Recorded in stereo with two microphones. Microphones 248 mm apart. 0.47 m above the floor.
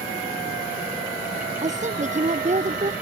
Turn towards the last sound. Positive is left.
turn(degrees=-30)  # may be behind; listen again after turning